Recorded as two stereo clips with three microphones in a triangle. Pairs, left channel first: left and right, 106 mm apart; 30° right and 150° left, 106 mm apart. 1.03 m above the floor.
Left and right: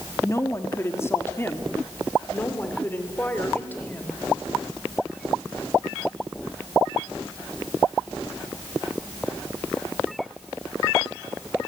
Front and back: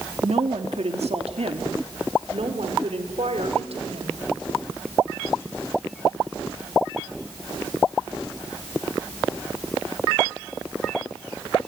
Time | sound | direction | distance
0.2 | a woman speaking | 150° left | 1.7 m